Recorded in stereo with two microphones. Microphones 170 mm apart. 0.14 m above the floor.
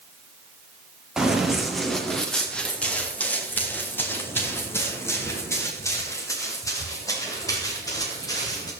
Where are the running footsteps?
5° right (ahead or behind), 3.5 m; by 8.7 s 20° left (ahead or behind), 9 m.